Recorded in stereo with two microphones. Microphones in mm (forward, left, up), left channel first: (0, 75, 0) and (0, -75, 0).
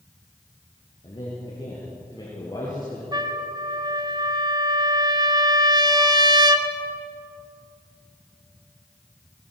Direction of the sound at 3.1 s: 30° right (ahead or behind).